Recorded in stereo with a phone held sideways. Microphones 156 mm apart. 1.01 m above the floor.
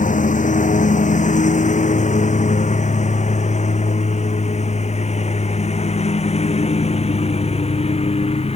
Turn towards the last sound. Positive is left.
turn(degrees=40)  # may be behind; listen again after turning